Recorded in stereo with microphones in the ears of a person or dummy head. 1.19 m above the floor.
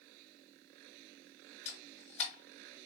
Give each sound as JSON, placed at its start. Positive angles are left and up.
{"t": 1.6, "sound": "a camera shutter", "side_deg": 35, "distance_m": 1.7}